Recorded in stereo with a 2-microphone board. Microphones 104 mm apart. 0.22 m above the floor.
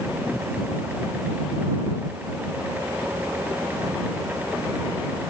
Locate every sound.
Only background noise.